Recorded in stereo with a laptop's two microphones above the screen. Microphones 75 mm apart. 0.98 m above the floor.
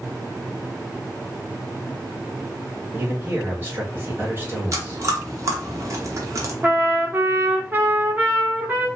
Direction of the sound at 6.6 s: 25° right (ahead or behind).